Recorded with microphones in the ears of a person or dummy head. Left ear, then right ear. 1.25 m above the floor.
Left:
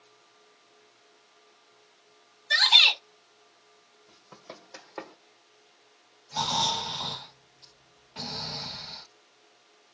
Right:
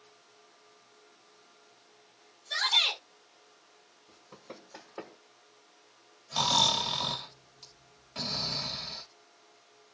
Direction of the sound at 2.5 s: 65° left (ahead or behind).